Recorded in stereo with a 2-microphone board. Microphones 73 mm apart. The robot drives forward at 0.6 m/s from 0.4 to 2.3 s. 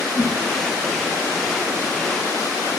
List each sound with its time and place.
0.1 s a whoosh: 30° right (ahead or behind), 3 m